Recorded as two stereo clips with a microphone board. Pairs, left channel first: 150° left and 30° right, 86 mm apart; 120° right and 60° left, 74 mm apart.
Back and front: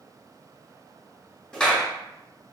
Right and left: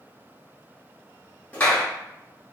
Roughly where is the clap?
Behind right.